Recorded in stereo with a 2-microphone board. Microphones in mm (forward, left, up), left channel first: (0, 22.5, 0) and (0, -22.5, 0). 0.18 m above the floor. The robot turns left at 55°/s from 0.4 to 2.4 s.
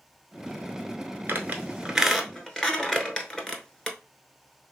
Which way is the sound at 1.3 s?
45° right (ahead or behind).